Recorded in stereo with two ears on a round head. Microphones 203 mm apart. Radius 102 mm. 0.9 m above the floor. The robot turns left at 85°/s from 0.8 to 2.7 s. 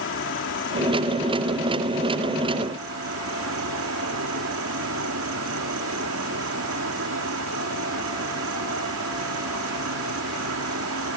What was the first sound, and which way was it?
An insect, 60° left.